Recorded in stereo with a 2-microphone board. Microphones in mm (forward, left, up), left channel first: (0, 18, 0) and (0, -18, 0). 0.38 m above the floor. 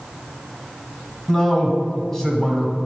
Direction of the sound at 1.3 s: 20° left (ahead or behind).